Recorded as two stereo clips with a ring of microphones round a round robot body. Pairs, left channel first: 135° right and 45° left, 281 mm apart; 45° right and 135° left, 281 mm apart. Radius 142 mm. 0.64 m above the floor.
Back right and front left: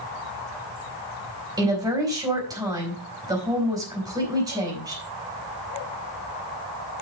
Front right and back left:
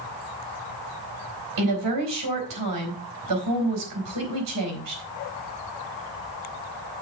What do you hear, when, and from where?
1.6 s a woman speaking: 120° left, 4.5 m